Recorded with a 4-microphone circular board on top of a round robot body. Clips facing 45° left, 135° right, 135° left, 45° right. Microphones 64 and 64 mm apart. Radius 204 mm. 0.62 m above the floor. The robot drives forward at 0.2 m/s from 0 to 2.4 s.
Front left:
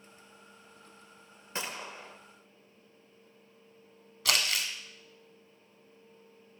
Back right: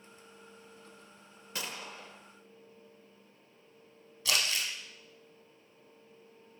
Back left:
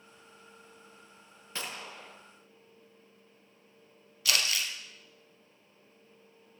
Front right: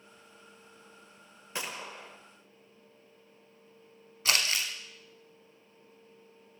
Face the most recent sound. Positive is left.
turn(degrees=20)